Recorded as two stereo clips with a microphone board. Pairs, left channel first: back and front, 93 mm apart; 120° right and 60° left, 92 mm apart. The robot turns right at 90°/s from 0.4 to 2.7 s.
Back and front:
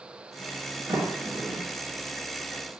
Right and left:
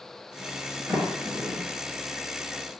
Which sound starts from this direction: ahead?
A sliding door, at 0.9 s.